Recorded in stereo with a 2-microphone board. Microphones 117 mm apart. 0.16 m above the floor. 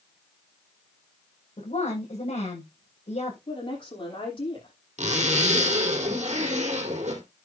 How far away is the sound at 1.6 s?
About 6.5 m.